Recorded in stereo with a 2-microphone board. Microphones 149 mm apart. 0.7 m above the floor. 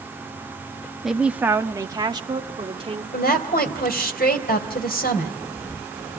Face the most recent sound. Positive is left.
turn(degrees=75)  # may be behind; listen again after turning